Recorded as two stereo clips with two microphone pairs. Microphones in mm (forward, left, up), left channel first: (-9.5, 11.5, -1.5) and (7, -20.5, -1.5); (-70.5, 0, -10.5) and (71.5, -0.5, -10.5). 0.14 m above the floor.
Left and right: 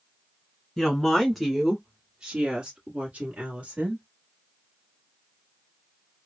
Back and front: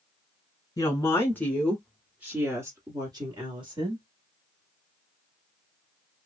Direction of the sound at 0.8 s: 175° right.